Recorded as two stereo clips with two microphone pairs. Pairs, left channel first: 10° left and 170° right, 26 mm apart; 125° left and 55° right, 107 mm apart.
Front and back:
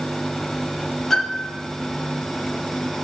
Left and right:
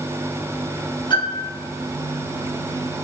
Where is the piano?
85° left, 5.5 m.